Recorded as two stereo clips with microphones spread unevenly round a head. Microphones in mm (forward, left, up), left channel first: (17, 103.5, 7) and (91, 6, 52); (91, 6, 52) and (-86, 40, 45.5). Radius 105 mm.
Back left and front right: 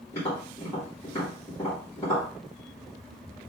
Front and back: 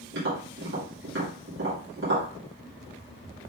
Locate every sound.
0.1 s tapping: 160° right, 2 m